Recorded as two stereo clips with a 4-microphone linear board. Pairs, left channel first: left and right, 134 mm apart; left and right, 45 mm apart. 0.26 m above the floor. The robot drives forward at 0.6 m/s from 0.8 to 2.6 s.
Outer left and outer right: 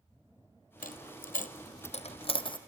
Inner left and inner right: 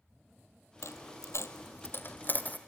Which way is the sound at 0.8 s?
75° left (ahead or behind).